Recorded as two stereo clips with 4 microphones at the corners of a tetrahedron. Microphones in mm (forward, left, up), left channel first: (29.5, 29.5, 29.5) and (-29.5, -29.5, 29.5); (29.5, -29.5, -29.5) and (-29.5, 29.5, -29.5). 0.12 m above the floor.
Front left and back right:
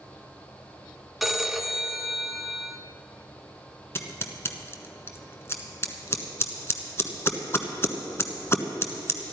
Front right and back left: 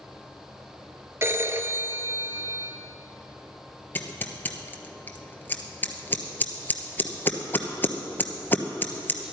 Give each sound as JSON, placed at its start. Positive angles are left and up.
{"t": 1.2, "sound": "a phone ringing", "azimuth_deg": 140, "distance_m": 0.9}
{"t": 4.0, "sound": "scissors", "azimuth_deg": 5, "distance_m": 1.1}